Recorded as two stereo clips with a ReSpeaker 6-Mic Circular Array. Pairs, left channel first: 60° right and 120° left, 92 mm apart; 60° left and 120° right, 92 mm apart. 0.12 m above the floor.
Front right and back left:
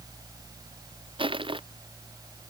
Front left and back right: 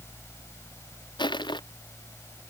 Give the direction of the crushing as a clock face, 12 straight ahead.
9 o'clock.